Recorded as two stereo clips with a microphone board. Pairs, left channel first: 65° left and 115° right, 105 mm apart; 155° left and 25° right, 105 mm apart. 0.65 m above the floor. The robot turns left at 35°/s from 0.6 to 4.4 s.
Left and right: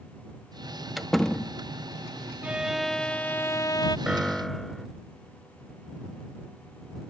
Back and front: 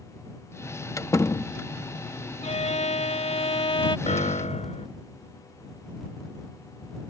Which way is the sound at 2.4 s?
170° left.